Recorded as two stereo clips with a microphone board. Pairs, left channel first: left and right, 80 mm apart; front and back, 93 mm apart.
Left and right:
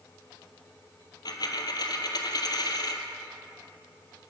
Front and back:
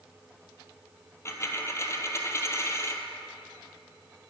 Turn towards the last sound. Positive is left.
turn(degrees=60)